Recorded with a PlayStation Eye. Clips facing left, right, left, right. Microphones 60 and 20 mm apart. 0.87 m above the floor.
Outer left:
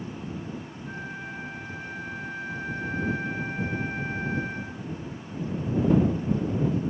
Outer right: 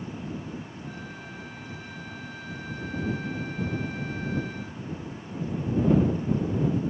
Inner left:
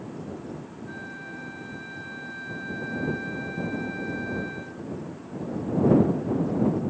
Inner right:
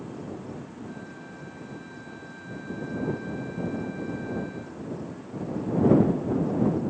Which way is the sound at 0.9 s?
35° left (ahead or behind).